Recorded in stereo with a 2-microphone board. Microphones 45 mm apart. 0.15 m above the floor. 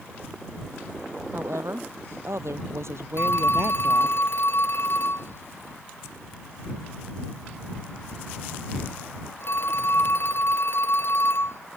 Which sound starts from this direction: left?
A phone ringing, at 3.2 s.